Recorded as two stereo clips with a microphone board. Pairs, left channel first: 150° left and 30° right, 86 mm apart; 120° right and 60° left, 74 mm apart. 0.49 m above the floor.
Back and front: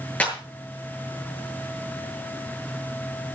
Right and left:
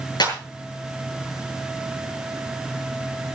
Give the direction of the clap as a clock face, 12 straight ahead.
5 o'clock.